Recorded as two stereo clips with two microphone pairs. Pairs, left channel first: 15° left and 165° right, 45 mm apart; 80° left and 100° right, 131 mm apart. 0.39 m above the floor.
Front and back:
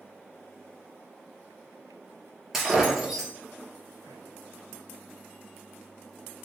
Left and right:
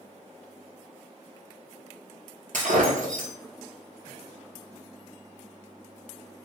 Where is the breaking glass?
80° right, 1.8 m.